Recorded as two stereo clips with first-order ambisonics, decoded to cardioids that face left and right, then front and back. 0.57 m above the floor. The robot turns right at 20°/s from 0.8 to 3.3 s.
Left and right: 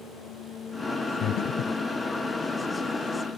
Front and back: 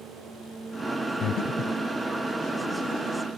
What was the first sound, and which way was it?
Breathing, 45° left.